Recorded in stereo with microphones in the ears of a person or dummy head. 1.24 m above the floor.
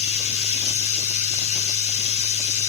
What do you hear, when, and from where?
0.0 s running water: 70° left (ahead or behind), 7 m